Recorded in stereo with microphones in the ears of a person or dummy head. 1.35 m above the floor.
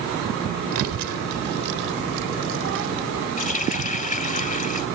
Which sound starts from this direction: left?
A running tap, at 3.4 s.